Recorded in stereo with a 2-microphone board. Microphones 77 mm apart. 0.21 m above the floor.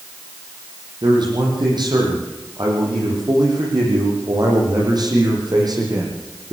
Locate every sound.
1.0 s a man speaking: 70° right (ahead or behind), 10 m; by 6.5 s 55° right (ahead or behind), 11 m